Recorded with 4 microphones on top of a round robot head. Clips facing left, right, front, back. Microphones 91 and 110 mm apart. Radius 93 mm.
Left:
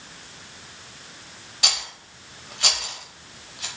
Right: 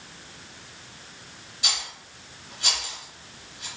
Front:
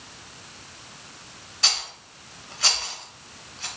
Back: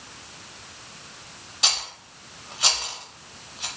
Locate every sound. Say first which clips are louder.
1.6 s a rattle: left 3 dB, back 1 dB; 110° left, 0.7 m